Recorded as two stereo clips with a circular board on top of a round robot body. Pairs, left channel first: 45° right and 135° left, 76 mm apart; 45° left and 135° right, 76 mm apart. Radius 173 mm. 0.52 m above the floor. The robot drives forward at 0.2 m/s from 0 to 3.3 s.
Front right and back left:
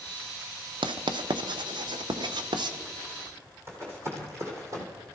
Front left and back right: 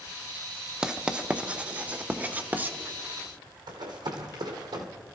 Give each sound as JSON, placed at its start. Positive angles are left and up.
{"t": 0.8, "sound": "writing", "azimuth_deg": 145, "distance_m": 0.7}
{"t": 3.7, "sound": "running footsteps", "azimuth_deg": -165, "distance_m": 2.5}